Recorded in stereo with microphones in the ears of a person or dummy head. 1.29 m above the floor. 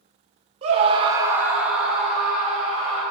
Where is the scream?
30° right (ahead or behind), 0.7 m; by 3.0 s 5° left (ahead or behind), 3.5 m.